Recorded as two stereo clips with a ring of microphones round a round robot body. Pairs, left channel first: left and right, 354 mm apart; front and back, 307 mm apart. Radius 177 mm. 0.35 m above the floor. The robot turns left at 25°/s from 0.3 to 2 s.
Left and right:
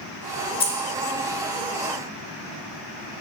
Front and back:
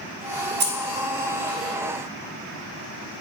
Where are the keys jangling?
155° left, 0.8 m; by 0.7 s 150° left, 0.8 m.